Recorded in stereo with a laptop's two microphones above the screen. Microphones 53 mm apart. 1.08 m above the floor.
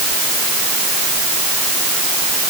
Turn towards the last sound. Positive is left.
No sound to turn to.